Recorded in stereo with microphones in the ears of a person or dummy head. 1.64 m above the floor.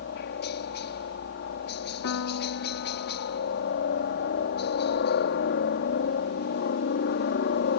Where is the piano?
65° left (ahead or behind).